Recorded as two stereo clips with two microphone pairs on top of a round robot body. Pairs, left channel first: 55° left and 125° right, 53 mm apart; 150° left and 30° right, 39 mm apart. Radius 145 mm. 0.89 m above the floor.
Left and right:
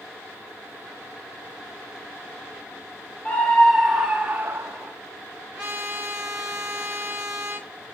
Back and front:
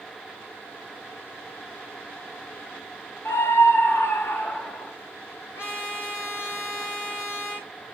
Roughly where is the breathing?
I don't hear breathing.